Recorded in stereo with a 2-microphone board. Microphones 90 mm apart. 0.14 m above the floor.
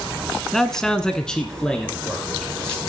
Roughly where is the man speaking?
Centre.